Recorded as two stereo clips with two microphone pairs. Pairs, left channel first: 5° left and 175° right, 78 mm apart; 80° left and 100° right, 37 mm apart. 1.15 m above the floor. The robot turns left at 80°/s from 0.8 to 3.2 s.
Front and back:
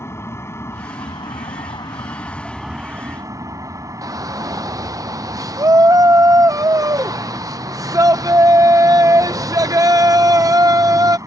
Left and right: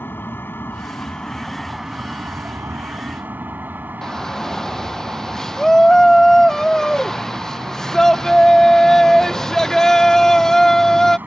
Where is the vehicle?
60° left; by 11.3 s 130° right.